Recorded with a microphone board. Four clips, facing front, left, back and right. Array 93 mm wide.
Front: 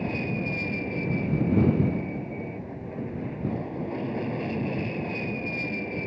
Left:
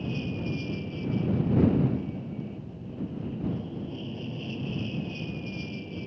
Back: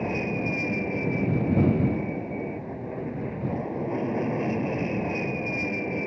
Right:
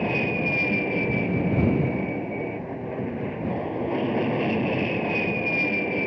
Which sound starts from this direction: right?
An aircraft, at 0.0 s.